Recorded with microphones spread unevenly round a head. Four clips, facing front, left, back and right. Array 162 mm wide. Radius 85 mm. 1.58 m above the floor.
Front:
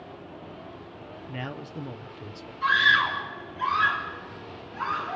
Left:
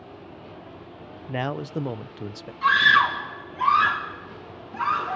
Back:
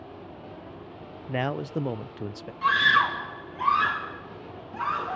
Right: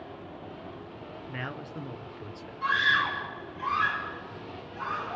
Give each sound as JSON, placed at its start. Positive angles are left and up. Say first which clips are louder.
{"t": 1.3, "sound": "a man speaking", "louder": "left 11 dB, back 9 dB", "azimuth_deg": 135, "distance_m": 0.6}
{"t": 2.6, "sound": "a scream", "louder": "left 8 dB, back 1 dB", "azimuth_deg": 140, "distance_m": 3.0}